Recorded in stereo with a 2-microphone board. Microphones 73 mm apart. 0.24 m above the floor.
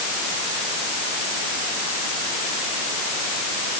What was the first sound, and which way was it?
Only background noise.